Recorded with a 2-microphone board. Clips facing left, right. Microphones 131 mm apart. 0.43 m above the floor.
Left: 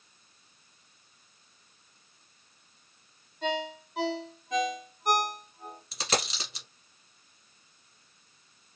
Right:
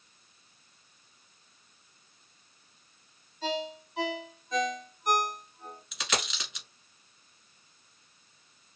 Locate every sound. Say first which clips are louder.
3.4 s a ringtone: left 1 dB; 65° left (ahead or behind), 2.5 m
5.9 s a dropped coin: left 3 dB; 35° left (ahead or behind), 1.3 m